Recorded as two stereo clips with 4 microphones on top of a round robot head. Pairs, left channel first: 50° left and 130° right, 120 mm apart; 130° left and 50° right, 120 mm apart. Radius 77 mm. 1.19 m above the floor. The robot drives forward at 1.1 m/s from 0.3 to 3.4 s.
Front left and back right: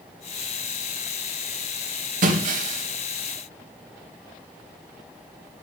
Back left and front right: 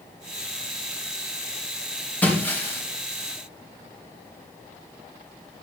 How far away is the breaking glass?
About 3.5 m.